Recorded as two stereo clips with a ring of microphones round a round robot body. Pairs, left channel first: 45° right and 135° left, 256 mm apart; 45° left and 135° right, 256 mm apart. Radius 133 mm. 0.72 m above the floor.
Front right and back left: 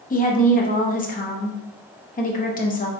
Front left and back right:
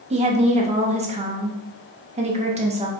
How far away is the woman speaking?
About 0.7 m.